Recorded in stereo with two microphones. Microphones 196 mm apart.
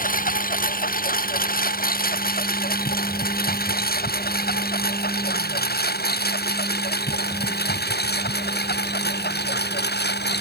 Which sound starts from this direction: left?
A lawn mower, at 0.0 s.